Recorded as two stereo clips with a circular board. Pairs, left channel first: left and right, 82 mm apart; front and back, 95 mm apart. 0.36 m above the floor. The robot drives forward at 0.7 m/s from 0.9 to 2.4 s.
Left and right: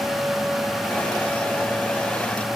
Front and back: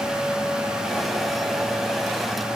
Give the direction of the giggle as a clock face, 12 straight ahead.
I don't hear a giggle.